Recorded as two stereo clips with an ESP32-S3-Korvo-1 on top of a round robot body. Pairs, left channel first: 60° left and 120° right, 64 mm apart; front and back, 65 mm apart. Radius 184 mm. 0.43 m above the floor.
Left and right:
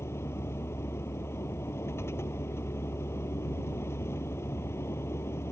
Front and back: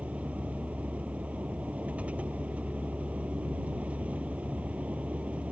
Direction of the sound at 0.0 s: 110° left.